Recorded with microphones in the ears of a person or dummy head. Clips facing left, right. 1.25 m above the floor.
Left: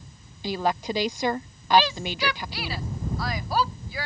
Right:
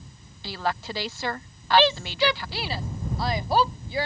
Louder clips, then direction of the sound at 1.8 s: Right 7 dB; 30° right (ahead or behind).